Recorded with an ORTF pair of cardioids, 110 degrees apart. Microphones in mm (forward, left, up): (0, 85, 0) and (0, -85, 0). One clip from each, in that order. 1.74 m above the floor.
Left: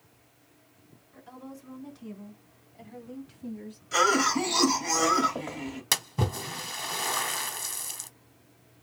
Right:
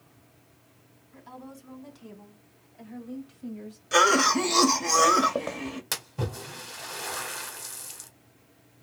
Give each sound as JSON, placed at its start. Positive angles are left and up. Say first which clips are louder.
{"t": 1.1, "sound": "a woman speaking", "louder": "right 1 dB", "azimuth_deg": -30, "distance_m": 3.5}
{"t": 3.9, "sound": "a cough", "louder": "right 3 dB", "azimuth_deg": -50, "distance_m": 1.4}
{"t": 5.9, "sound": "a splash", "louder": "left 7 dB", "azimuth_deg": 25, "distance_m": 0.8}